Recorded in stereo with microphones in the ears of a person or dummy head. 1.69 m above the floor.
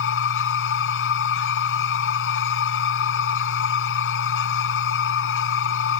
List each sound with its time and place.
0.0 s a machine running: 80° left